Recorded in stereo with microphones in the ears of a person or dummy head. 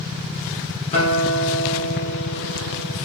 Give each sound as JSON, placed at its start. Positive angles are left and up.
{"t": 0.9, "sound": "a guitar", "side_deg": 35, "distance_m": 2.0}